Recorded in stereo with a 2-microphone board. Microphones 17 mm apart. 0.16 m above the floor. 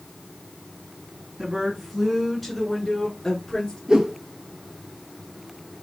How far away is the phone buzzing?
I don't hear a phone buzzing.